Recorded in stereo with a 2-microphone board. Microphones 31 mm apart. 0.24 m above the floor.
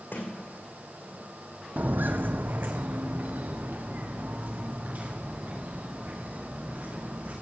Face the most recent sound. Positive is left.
turn(degrees=-55)  # may be behind; listen again after turning